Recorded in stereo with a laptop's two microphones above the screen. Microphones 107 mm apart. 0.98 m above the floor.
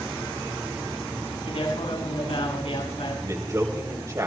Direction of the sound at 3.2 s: 35° right (ahead or behind).